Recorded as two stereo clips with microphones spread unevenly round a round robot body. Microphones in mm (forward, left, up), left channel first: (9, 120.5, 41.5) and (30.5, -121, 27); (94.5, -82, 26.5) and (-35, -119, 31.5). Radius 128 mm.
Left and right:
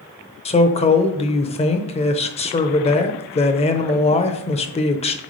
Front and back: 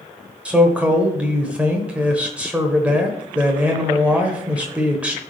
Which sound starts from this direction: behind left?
A man speaking, at 0.5 s.